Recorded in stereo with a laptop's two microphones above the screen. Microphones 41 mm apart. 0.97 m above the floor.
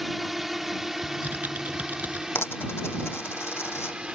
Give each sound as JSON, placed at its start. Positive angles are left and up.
{"t": 0.0, "sound": "a drone", "side_deg": -5}
{"t": 1.0, "sound": "typing on a keyboard", "side_deg": -45}
{"t": 2.4, "sound": "a dropped coin", "side_deg": 70}